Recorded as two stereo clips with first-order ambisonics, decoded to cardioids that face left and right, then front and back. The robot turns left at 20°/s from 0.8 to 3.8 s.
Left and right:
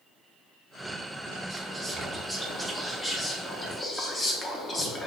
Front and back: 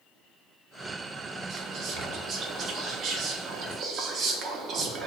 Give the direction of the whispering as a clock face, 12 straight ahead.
5 o'clock.